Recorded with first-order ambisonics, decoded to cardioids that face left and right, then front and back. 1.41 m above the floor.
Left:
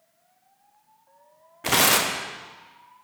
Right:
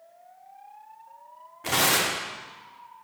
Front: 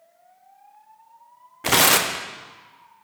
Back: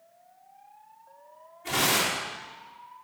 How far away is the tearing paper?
About 0.8 m.